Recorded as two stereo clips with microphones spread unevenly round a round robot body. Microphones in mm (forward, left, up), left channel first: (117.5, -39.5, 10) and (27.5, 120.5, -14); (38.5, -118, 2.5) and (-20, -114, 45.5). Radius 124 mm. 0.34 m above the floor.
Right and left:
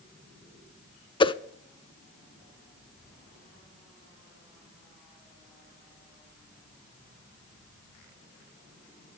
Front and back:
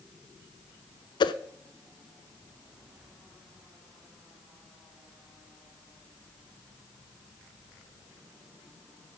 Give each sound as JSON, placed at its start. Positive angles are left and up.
{"t": 1.2, "sound": "a whoosh", "azimuth_deg": 5, "distance_m": 0.5}